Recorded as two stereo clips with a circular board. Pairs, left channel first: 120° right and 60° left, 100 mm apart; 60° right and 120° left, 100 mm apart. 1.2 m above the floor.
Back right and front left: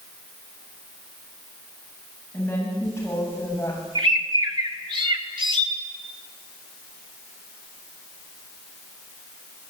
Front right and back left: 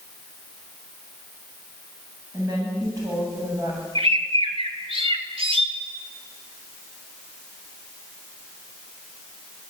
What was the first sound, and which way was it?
A woman speaking, 170° left.